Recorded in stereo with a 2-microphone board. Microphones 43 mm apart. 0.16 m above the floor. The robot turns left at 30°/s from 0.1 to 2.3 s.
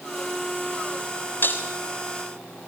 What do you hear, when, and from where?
1.4 s breaking glass: 55° left (ahead or behind), 3 m; by 1.6 s 45° left (ahead or behind), 3 m